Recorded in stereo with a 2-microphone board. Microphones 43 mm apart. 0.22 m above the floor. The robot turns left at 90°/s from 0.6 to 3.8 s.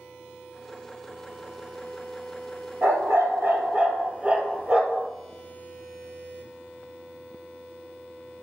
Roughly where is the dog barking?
Ahead right.